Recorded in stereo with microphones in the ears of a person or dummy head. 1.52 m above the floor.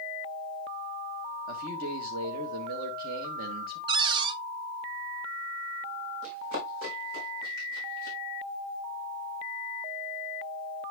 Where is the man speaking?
55° right (ahead or behind), 1.9 m.